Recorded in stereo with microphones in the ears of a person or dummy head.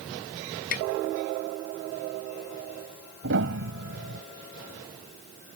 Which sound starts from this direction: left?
Tapping, at 0.7 s.